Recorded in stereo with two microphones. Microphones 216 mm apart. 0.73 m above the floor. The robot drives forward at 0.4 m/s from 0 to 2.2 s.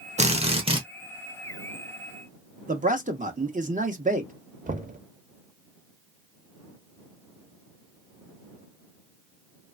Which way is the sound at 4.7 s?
40° right (ahead or behind).